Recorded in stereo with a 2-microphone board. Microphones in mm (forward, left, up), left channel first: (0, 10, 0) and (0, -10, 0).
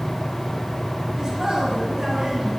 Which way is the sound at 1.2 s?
25° right (ahead or behind).